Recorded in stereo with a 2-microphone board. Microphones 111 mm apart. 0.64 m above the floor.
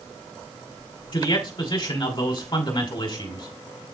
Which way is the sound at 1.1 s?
45° left (ahead or behind).